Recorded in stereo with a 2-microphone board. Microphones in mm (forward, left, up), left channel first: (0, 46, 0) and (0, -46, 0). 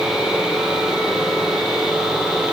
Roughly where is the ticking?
I don't hear ticking.